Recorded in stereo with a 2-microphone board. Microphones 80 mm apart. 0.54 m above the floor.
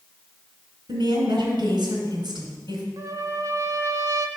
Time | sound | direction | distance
0.9 | a woman speaking | 75° right (ahead or behind) | 2.5 m
3.0 | a trumpet | 45° right (ahead or behind) | 0.5 m